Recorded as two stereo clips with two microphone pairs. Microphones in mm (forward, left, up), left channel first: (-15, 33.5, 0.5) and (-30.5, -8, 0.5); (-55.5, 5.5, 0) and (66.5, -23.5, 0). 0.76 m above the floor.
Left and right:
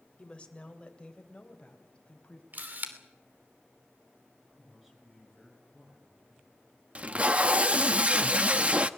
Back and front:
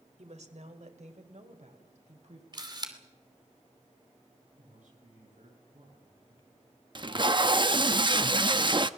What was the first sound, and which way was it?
A woman speaking, 5° left.